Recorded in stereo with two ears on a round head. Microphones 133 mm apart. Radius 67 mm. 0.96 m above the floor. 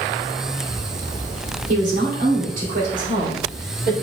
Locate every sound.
1.7 s a woman speaking: 50° right (ahead or behind), 2.5 m; by 3.9 s 60° right (ahead or behind), 3.5 m